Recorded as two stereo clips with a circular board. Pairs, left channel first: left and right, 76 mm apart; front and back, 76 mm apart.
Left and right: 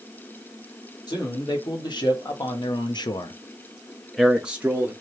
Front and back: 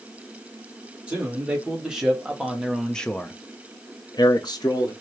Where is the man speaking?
105° left, 1.8 m; by 4.9 s 30° right, 0.9 m.